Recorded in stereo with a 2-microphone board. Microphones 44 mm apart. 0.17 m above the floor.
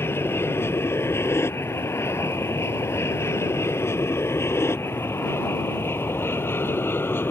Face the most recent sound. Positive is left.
turn(degrees=50)  # may be behind; listen again after turning